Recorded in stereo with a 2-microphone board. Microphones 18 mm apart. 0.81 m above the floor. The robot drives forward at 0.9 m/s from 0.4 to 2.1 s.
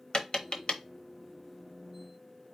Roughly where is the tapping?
Left.